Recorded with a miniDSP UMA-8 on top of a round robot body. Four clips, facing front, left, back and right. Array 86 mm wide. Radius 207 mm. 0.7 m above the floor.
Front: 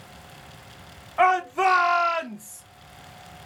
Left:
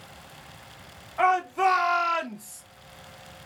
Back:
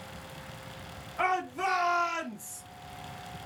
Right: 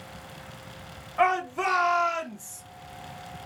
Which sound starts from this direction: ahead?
A shout, at 1.2 s.